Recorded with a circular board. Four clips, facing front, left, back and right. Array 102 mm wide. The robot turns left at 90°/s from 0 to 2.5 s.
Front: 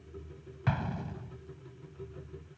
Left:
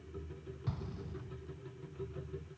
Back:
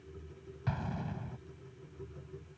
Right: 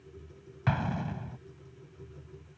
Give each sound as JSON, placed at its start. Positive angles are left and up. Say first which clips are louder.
{"t": 0.7, "sound": "an explosion", "louder": "right 14 dB, front 4 dB", "azimuth_deg": -65}